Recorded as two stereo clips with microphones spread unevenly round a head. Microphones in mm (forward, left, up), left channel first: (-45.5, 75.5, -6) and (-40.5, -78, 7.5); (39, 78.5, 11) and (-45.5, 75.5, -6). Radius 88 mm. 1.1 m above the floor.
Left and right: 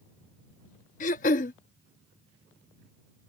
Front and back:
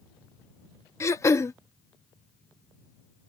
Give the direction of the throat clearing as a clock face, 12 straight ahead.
10 o'clock.